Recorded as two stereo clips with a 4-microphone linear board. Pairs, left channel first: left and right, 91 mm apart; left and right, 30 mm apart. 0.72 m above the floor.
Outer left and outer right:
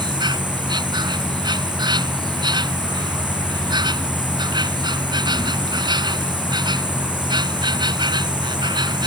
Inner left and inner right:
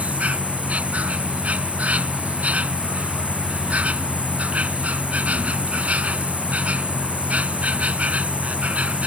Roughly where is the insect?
Right.